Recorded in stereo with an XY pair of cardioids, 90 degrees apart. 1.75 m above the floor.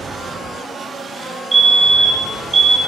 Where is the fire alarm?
30° right, 1.1 m.